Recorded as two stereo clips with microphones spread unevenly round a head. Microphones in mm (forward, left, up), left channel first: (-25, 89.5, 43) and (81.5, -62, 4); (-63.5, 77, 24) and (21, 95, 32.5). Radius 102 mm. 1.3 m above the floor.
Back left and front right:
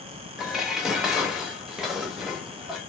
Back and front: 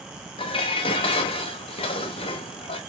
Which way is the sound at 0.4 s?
150° right.